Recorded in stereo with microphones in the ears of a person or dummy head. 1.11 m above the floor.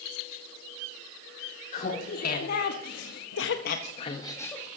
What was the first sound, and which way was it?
Laughter, 40° left (ahead or behind).